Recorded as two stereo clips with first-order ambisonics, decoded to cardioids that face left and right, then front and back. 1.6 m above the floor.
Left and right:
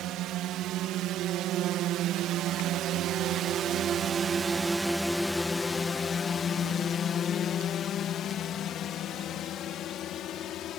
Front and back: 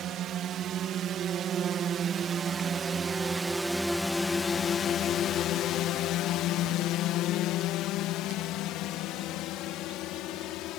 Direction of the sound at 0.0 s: 130° right.